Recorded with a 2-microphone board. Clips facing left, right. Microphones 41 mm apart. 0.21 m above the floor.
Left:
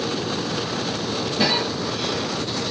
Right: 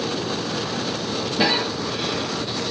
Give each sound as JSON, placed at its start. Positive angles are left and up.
{"t": 1.4, "sound": "a cough", "side_deg": -15, "distance_m": 1.2}